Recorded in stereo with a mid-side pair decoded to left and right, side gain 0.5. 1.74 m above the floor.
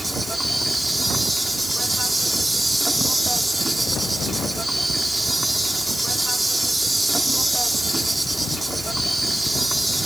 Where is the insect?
5° right.